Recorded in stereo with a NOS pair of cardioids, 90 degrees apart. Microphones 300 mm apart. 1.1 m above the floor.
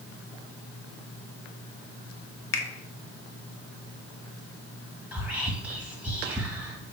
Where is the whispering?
5° right, 1.4 m.